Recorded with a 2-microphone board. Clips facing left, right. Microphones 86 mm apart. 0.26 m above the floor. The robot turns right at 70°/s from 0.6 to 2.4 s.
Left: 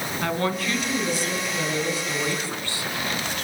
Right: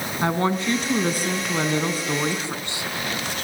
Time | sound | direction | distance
0.2 | a woman speaking | 150° right | 3 m